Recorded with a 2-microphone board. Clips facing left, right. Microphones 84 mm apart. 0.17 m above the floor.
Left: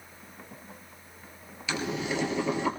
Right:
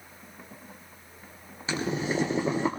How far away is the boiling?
About 2.5 m.